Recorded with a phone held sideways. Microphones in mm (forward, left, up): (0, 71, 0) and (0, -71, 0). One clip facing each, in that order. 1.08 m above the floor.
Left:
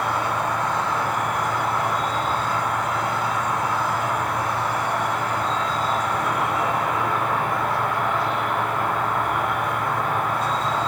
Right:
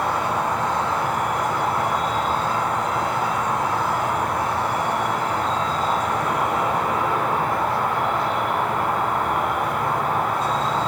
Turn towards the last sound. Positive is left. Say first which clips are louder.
# right 1 dB
turn(degrees=-35)  # may be behind; listen again after turning